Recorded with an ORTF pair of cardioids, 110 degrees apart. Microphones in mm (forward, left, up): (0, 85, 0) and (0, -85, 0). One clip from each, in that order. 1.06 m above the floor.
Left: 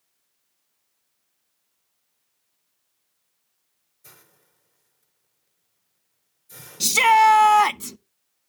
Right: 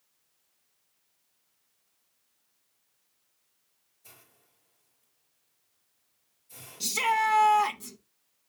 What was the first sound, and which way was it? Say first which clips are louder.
A hiss: left 4 dB; 70° left.